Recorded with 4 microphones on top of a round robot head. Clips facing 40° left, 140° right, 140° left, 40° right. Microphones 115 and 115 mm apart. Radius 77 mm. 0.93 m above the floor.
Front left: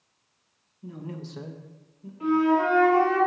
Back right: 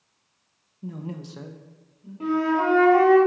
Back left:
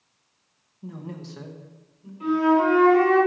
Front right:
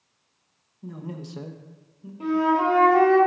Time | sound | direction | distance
0.8 | a man speaking | 135° right | 0.9 m
2.2 | a flute | 85° right | 1.9 m